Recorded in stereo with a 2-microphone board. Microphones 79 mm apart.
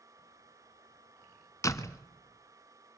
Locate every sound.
1.6 s a door slam: 45° left (ahead or behind), 1.3 m